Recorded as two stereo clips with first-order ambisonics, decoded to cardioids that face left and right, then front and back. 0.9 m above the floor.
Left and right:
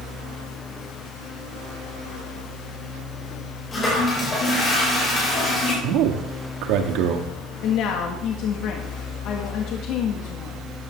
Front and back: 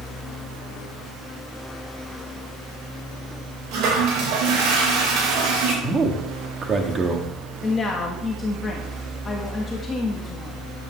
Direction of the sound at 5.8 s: 115° right.